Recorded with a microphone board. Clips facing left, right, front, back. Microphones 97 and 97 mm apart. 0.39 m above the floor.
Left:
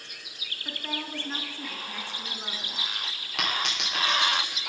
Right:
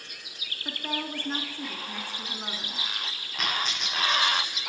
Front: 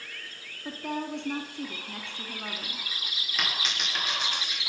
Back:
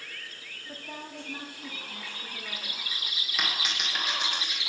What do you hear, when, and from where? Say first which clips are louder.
0.7 s a woman speaking: right 2 dB, front 9 dB; 15° right, 3 m
3.4 s a dropped coin: left 1 dB, even; 95° left, 9 m